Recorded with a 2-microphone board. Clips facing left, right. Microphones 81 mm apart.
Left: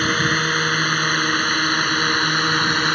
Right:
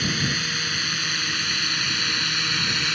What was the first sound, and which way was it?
A drone, 50° left (ahead or behind).